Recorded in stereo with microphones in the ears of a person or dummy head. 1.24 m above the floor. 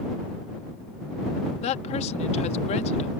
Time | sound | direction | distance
1.6 | a woman speaking | 35° left (ahead or behind) | ?